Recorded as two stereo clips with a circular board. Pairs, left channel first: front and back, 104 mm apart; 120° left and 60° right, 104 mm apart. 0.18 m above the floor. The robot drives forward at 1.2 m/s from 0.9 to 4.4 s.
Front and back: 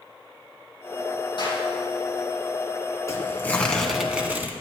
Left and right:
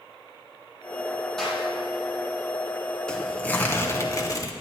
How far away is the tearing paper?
About 1.9 m.